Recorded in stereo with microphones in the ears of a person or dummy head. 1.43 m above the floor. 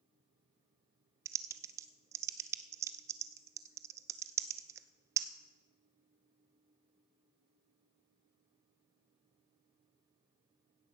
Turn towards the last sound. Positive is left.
turn(degrees=-15)  # may be behind; listen again after turning